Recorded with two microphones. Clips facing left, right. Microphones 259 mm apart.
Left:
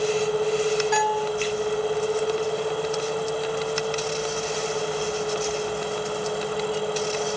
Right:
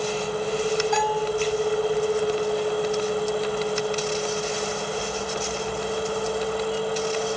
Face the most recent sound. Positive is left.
turn(degrees=75)  # may be behind; listen again after turning